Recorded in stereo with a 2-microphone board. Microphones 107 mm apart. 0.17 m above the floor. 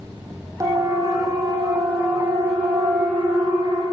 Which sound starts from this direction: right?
A siren, at 0.6 s.